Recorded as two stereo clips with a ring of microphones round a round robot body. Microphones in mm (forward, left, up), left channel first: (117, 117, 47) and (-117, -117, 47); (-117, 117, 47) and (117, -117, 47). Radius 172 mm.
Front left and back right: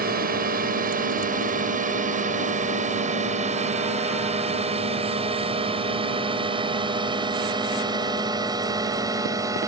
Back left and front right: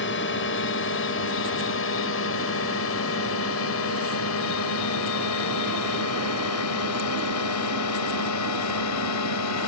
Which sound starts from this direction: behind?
A drone, at 0.0 s.